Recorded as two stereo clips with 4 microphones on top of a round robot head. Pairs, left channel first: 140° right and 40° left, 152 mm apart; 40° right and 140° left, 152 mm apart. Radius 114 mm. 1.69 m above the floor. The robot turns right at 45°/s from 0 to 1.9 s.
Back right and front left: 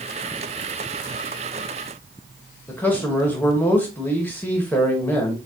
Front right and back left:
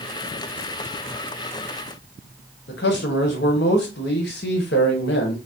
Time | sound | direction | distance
2.7 | a man speaking | 60° right | 1.0 m